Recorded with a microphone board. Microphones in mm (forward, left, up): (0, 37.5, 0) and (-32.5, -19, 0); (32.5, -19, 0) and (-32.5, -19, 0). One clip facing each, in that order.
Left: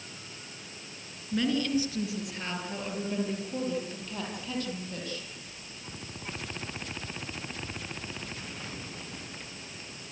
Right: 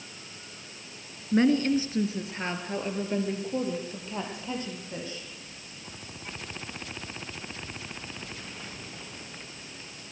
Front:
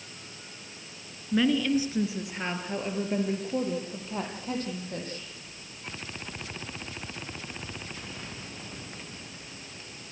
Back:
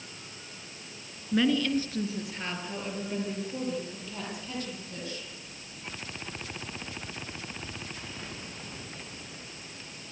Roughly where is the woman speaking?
Right.